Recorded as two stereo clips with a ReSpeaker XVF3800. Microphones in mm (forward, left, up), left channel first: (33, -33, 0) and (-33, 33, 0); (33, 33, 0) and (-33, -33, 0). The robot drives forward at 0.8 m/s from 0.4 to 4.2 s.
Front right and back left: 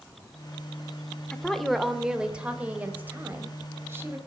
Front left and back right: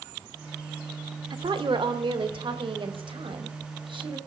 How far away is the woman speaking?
About 1.3 m.